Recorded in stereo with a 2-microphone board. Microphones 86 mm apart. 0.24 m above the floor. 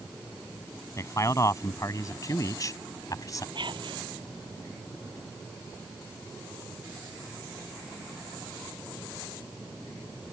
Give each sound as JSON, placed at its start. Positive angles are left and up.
{"t": 1.0, "sound": "a man speaking", "side_deg": 40}
{"t": 3.5, "sound": "whispering", "side_deg": -65}